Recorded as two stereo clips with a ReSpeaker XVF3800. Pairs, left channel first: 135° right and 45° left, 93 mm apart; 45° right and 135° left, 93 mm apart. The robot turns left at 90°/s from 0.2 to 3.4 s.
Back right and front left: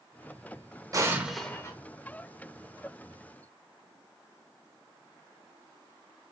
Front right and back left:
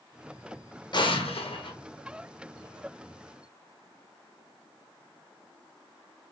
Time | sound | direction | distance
0.9 | an explosion | 5° right | 0.6 m